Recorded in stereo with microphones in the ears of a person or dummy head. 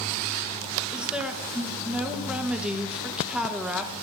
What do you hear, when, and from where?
0.9 s a woman speaking: 5° right (ahead or behind), 1.6 m